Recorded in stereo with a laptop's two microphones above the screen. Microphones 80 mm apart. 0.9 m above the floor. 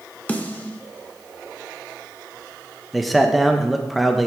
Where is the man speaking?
Centre (ahead or behind), 0.8 m.